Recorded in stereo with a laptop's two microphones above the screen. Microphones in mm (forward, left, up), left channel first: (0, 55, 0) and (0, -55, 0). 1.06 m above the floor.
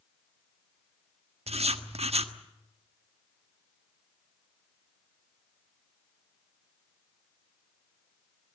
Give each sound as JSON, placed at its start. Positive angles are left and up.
{"t": 1.5, "sound": "writing", "side_deg": -70, "distance_m": 1.3}